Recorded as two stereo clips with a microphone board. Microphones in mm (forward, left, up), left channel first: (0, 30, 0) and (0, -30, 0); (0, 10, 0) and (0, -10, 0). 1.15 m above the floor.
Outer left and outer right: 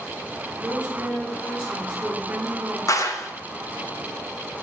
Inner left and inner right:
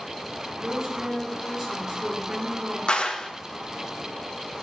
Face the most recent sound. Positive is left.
turn(degrees=60)  # may be behind; listen again after turning